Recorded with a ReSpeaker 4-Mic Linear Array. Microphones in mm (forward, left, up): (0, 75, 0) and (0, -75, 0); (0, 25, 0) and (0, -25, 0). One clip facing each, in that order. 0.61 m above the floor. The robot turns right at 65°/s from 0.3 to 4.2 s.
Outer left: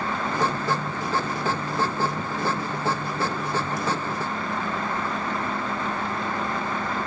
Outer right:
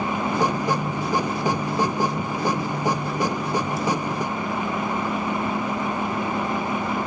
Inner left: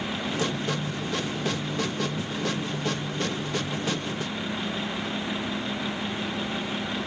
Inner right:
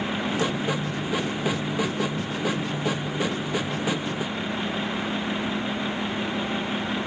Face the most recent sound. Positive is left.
No sound to turn to.